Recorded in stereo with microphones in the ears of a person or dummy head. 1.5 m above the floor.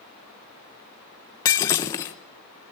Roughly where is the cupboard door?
I don't hear a cupboard door.